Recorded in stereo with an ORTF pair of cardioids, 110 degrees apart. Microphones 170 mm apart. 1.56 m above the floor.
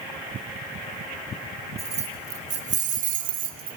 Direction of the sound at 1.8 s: 40° right.